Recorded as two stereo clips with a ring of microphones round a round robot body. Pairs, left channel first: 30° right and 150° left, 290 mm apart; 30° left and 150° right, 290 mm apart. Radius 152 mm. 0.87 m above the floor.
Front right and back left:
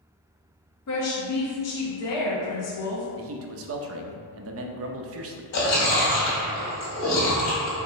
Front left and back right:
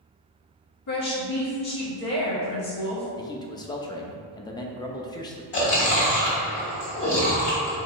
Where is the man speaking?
105° left, 0.6 m.